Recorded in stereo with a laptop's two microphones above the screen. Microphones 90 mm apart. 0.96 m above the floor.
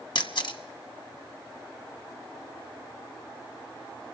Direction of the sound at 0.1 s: 65° left (ahead or behind).